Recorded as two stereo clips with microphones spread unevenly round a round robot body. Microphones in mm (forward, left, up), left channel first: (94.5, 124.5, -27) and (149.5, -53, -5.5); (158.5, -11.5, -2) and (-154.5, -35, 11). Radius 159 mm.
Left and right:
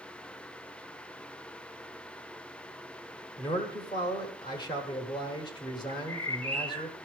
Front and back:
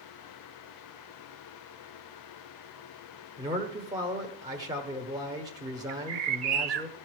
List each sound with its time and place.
3.4 s a man speaking: 115° left, 1.1 m
5.9 s a bird: 165° left, 0.6 m